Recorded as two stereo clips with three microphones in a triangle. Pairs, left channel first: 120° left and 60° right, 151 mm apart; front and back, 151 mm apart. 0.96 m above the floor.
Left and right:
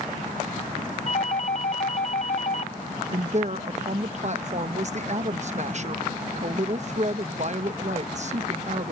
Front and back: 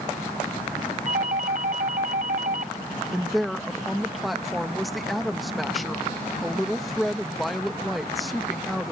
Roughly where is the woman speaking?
Right.